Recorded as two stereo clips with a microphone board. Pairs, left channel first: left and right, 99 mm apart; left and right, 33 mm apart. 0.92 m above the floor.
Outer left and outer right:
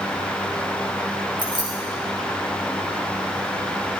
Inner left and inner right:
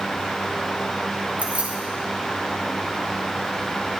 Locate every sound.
1.4 s keys jangling: 55° right (ahead or behind), 4 m